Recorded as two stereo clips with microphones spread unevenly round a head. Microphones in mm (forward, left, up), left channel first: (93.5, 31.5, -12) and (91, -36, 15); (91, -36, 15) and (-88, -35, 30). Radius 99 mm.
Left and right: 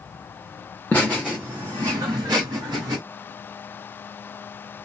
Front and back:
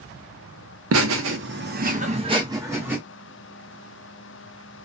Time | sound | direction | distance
0.9 | laughter | 175° left | 0.7 m